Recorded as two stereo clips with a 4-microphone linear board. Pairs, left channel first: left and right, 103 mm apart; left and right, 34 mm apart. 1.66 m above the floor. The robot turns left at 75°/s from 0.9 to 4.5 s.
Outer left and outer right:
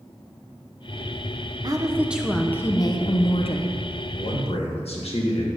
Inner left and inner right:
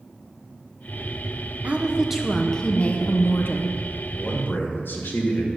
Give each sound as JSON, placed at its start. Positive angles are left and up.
{"t": 1.6, "sound": "a woman speaking", "azimuth_deg": -135, "distance_m": 0.9}
{"t": 4.2, "sound": "a man speaking", "side_deg": 55, "distance_m": 1.8}